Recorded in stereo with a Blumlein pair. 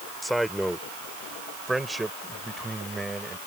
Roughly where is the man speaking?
Ahead.